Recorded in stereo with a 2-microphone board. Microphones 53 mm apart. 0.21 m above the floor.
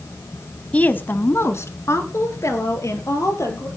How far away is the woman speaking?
About 1.0 m.